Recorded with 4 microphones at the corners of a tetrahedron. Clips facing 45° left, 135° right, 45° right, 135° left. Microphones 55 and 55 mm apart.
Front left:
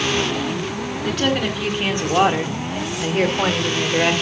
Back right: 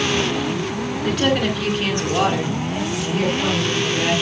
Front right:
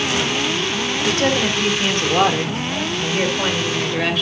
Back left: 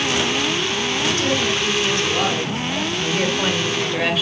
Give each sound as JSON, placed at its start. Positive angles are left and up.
{"t": 1.0, "sound": "a woman speaking", "azimuth_deg": -50, "distance_m": 1.9}